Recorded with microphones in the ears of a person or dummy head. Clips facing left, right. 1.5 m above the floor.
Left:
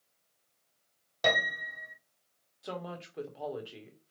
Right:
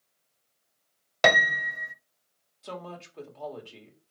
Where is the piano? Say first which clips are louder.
Right 7 dB; 75° right (ahead or behind), 0.6 m.